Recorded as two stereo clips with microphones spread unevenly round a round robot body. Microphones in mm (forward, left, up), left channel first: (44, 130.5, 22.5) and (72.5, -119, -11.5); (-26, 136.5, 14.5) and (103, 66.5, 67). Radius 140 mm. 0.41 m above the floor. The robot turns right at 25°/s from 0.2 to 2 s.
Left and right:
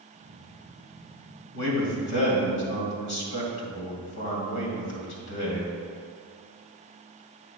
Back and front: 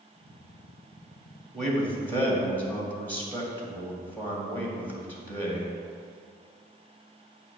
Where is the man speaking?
75° left, 2.5 m; by 5.7 s 85° left, 2.5 m.